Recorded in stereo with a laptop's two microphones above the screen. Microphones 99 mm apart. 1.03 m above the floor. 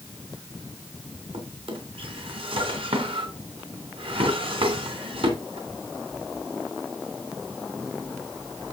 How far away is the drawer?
About 3 m.